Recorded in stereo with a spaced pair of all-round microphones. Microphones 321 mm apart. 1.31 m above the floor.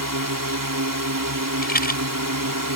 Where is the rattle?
30° left (ahead or behind).